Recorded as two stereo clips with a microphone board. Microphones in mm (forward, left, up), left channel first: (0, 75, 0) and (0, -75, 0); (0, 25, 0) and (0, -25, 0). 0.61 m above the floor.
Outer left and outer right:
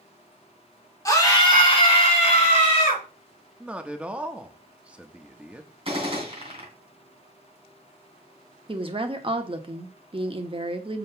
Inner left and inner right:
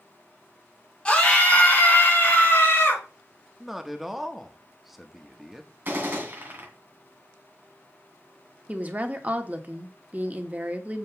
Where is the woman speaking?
35° right (ahead or behind), 1.2 m.